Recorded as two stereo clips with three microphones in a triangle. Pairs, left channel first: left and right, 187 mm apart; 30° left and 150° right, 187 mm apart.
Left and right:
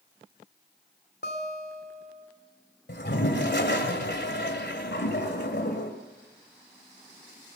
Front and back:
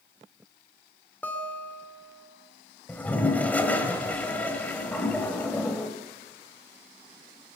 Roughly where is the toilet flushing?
Left.